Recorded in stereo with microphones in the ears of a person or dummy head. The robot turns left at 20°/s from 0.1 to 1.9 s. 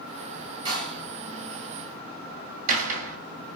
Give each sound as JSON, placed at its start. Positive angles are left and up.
{"t": 0.7, "sound": "a door slam", "side_deg": -20, "distance_m": 2.0}